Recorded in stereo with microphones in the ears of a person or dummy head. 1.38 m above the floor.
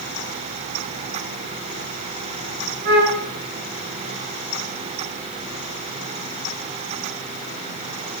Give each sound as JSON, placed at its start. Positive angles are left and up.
{"t": 2.9, "sound": "a flute", "side_deg": -60, "distance_m": 1.5}